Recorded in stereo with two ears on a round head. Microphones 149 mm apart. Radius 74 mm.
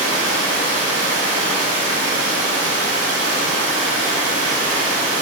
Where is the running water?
85° right, 3 m.